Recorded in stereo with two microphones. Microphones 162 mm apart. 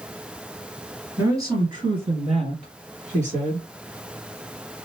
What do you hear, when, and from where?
1.2 s a woman speaking: 15° right (ahead or behind), 1.8 m; by 3.7 s 55° right (ahead or behind), 2.5 m